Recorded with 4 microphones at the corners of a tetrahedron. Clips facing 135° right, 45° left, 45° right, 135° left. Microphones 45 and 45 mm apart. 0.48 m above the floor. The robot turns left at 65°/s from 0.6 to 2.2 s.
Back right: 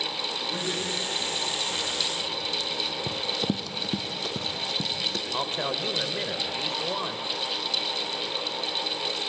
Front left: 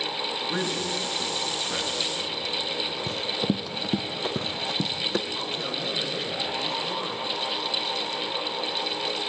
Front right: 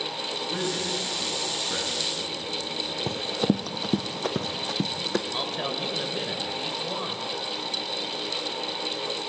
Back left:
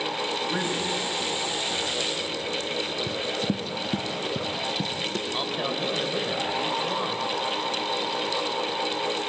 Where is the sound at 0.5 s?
70° left, 7 m; by 3.0 s 35° right, 7 m.